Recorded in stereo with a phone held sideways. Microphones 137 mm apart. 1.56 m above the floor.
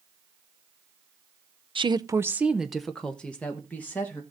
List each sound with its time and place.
1.8 s a woman speaking: 40° right (ahead or behind), 0.5 m; by 4.2 s 15° left (ahead or behind), 1.9 m